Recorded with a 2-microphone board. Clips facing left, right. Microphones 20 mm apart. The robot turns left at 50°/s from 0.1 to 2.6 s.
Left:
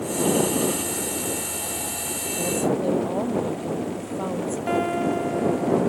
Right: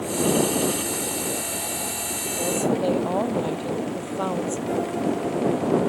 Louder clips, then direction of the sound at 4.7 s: Left 4 dB; 70° left (ahead or behind).